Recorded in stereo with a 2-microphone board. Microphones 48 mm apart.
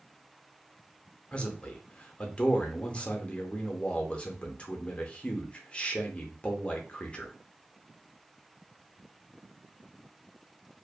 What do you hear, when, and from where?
1.3 s a man speaking: 25° left (ahead or behind), 0.6 m